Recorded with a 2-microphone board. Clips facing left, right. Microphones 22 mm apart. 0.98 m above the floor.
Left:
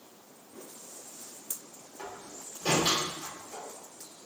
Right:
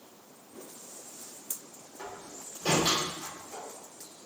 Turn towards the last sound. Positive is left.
turn(degrees=75)  # may be behind; listen again after turning